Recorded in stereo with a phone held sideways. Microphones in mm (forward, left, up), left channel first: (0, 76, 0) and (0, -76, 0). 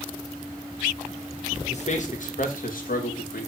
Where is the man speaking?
50° left (ahead or behind), 1.5 m; by 3.5 s 80° left, 1.9 m.